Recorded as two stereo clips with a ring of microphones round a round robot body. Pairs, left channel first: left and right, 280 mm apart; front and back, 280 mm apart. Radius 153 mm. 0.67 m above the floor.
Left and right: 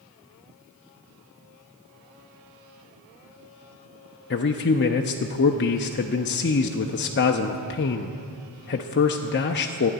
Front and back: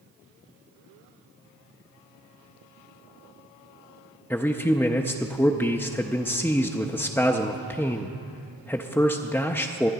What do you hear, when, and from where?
4.3 s a man speaking: 80° left, 0.6 m